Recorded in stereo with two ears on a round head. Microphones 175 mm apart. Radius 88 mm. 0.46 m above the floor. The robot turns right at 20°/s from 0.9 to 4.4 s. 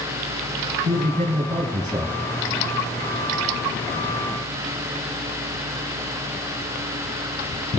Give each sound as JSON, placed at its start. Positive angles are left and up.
{"t": 0.8, "sound": "a man speaking", "side_deg": -40, "distance_m": 4.0}